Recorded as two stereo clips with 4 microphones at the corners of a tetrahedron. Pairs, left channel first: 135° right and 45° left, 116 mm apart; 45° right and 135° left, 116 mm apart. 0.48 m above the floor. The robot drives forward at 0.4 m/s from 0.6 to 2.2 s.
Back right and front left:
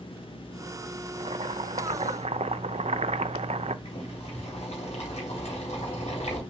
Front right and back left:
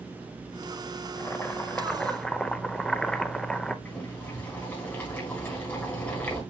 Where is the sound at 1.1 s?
20° left, 0.9 m; by 3.8 s 40° left, 0.5 m.